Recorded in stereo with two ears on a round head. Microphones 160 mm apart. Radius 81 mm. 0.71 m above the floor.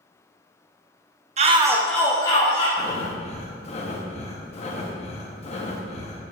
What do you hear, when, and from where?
1.4 s a shout: 35° right (ahead or behind), 0.6 m; by 2.7 s 30° left (ahead or behind), 1.3 m
2.8 s breathing: 35° left (ahead or behind), 0.8 m